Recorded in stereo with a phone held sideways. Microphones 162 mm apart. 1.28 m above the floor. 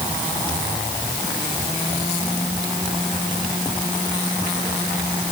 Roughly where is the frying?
I don't hear frying.